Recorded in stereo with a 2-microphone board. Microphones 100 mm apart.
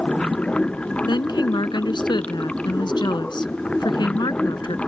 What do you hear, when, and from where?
0.0 s running water: 10° left (ahead or behind)
1.1 s a woman speaking: 50° left (ahead or behind)